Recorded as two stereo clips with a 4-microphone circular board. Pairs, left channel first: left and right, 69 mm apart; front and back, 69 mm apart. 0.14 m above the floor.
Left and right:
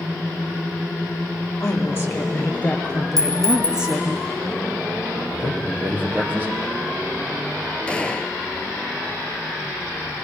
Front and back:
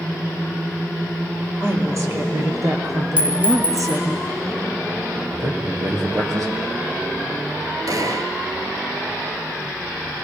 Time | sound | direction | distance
1.6 | a woman speaking | 135° left | 3 m
3.2 | a clink | 115° right | 1.8 m
5.2 | a man speaking | 155° right | 4 m
7.9 | a gunshot | 165° left | 0.7 m